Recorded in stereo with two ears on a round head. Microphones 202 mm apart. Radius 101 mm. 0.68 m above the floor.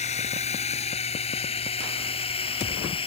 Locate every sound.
0.0 s a drone: 30° left (ahead or behind); by 3.1 s 20° left (ahead or behind)